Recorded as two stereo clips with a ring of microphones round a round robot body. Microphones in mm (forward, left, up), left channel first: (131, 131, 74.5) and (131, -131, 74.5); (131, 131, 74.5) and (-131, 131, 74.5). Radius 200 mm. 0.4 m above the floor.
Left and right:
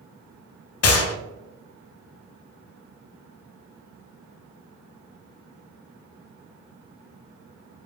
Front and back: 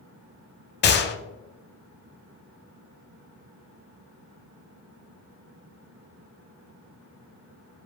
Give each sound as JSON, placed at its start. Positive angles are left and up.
{"t": 0.8, "sound": "a gunshot", "azimuth_deg": 55, "distance_m": 0.6}